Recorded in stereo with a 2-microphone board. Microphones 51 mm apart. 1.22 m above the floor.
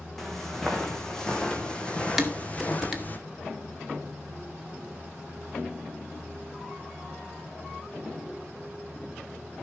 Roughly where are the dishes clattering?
Centre.